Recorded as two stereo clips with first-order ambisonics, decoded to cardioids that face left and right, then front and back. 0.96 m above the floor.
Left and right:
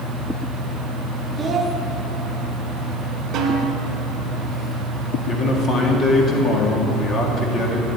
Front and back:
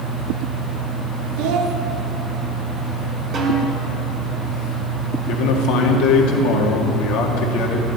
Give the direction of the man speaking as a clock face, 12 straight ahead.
11 o'clock.